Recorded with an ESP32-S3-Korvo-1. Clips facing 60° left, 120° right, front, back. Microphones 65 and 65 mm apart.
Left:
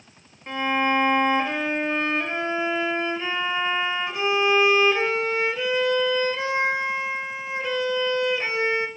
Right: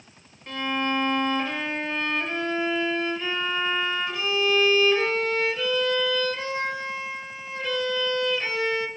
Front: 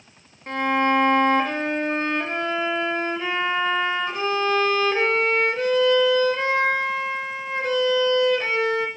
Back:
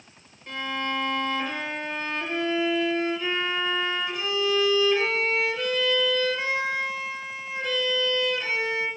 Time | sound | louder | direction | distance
0.5 | a violin | left 4 dB, front 9 dB | 5° left | 0.7 m